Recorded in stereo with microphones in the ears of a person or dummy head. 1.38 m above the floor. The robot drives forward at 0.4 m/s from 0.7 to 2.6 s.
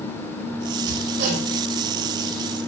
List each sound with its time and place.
0.8 s hammering: 65° right (ahead or behind), 6 m